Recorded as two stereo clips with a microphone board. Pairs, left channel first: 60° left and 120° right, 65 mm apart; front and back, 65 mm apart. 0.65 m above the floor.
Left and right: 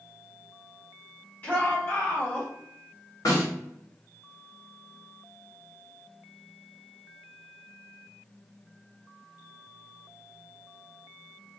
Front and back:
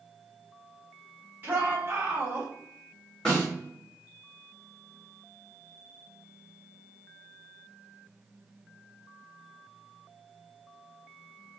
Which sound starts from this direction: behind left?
A shout, at 1.4 s.